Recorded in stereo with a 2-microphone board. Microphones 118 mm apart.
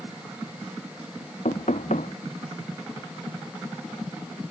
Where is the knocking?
80° left.